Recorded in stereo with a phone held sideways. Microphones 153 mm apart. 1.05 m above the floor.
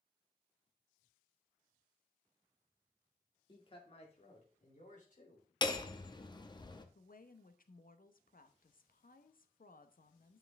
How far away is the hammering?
About 0.9 m.